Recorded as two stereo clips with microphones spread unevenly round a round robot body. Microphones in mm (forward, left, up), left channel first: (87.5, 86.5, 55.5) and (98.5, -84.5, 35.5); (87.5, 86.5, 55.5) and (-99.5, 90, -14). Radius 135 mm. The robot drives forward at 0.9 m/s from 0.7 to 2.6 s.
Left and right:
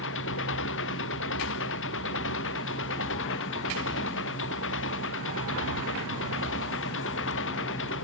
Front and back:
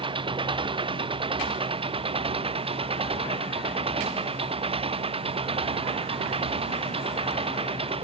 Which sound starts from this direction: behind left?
An engine running, at 0.0 s.